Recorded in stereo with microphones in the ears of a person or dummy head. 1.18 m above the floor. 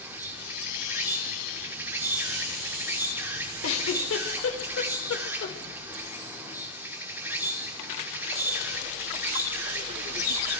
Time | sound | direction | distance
0.0 | an insect | 15° right (ahead or behind) | 2 m
3.6 | a giggle | 75° left (ahead or behind) | 4.5 m